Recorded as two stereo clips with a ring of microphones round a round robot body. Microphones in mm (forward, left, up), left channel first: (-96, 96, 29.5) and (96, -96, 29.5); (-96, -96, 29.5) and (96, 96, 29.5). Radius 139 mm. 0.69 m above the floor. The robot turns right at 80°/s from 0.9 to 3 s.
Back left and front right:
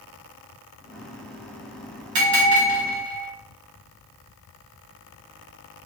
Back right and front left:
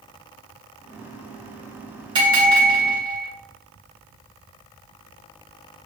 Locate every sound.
2.1 s a bell: 30° right, 2 m; by 3.3 s 40° left, 2 m